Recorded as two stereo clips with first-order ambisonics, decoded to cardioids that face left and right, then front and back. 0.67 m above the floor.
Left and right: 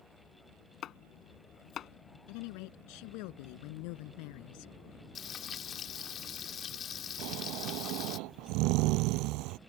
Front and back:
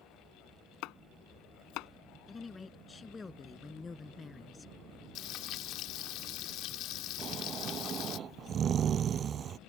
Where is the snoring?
115° right.